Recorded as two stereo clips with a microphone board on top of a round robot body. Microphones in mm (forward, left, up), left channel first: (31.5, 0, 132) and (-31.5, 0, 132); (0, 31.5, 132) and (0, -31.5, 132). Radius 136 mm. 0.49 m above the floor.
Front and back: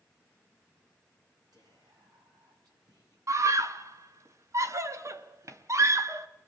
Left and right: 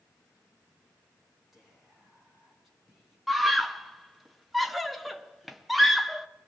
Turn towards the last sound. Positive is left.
turn(degrees=180)